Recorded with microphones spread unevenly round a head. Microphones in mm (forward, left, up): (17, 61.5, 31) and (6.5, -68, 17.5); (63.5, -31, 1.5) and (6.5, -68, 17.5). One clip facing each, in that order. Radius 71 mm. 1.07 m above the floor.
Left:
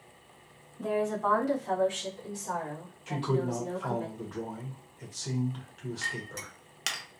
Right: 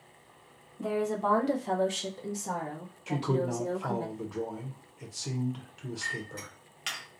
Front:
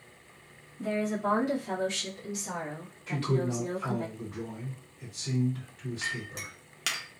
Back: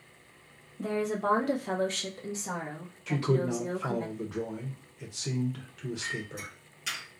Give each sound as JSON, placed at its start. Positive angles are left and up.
{"t": 0.8, "sound": "a woman speaking", "azimuth_deg": -170, "distance_m": 0.8}
{"t": 3.1, "sound": "a man speaking", "azimuth_deg": -170, "distance_m": 0.6}
{"t": 6.0, "sound": "a clink", "azimuth_deg": 50, "distance_m": 0.6}